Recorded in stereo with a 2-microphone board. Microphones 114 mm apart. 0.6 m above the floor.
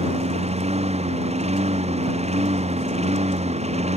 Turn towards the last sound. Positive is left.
turn(degrees=-75)  # may be behind; listen again after turning